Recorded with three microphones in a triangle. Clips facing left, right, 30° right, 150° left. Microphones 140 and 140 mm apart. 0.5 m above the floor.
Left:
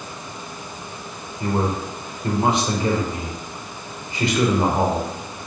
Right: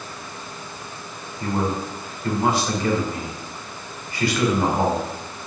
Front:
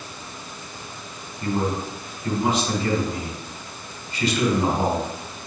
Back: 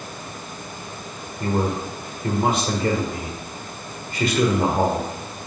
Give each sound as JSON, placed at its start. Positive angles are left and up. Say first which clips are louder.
{"t": 1.4, "sound": "a man speaking", "louder": "left 1 dB, back 1 dB", "azimuth_deg": 155, "distance_m": 1.9}